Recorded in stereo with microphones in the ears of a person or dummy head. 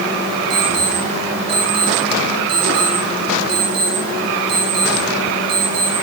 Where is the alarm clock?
30° right (ahead or behind), 4 m.